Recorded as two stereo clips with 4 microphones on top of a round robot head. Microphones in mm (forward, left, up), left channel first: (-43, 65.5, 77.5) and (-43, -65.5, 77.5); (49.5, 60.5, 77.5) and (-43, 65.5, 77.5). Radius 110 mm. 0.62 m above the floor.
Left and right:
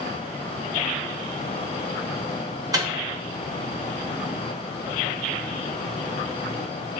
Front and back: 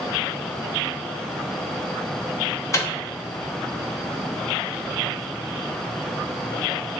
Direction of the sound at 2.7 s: 45° right.